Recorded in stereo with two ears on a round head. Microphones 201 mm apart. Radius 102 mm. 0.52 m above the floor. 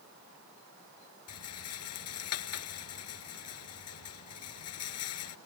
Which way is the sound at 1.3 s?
70° left (ahead or behind).